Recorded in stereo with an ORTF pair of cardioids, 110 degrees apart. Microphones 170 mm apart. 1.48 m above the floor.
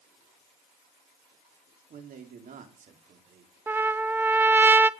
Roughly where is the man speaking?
Ahead right.